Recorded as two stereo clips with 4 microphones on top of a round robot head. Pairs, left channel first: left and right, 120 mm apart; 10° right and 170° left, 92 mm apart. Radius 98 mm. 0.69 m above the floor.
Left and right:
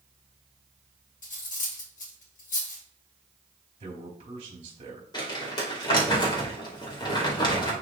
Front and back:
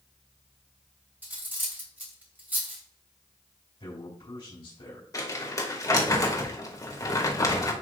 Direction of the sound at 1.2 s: 100° left.